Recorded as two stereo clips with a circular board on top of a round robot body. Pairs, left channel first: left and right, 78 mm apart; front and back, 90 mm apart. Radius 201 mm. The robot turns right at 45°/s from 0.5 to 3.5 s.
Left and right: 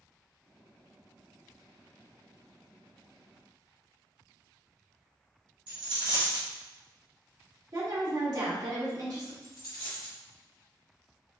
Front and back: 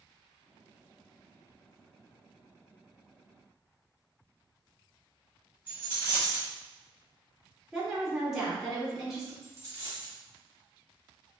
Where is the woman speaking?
95° right, 1.9 m.